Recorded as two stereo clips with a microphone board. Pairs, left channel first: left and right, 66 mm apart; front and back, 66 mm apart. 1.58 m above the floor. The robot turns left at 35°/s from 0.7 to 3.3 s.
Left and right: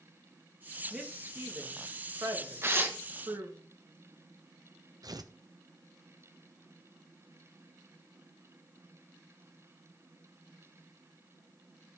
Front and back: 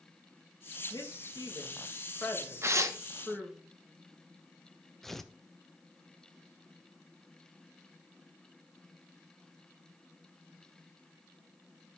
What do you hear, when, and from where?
0.9 s a woman speaking: 15° right, 2.5 m; by 3.6 s 100° right, 2.5 m
2.6 s tearing paper: 135° right, 1.1 m; by 3.0 s 150° right, 1.1 m
5.0 s tearing paper: 85° right, 0.8 m